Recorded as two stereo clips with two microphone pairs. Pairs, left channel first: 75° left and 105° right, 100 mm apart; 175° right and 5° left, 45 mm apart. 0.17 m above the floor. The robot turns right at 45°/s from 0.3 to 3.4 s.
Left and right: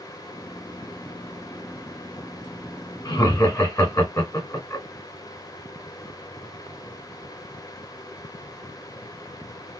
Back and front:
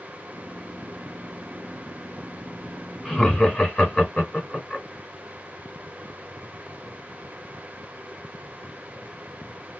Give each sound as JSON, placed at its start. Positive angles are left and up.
{"t": 3.0, "sound": "laughter", "azimuth_deg": 110, "distance_m": 1.4}